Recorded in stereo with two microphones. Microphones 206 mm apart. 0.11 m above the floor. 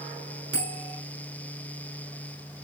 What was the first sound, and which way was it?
A bell, 65° right (ahead or behind).